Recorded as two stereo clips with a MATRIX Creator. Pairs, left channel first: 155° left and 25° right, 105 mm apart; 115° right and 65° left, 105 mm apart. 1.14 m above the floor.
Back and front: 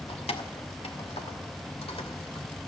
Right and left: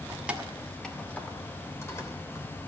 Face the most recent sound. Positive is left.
turn(degrees=-170)